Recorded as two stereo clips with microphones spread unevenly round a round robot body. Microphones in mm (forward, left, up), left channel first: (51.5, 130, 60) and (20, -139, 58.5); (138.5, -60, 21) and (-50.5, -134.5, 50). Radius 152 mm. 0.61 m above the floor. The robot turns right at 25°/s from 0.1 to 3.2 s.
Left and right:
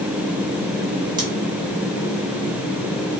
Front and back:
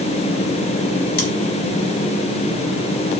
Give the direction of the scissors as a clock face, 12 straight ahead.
1 o'clock.